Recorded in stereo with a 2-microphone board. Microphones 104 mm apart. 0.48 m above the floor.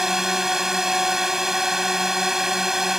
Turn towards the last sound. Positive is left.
turn(degrees=-5)  # may be behind; listen again after turning